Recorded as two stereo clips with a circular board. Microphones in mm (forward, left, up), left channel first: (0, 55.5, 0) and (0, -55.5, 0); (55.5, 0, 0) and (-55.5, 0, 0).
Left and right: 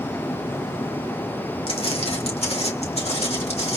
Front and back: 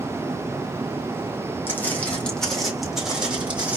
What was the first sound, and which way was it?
Footsteps, 70° left.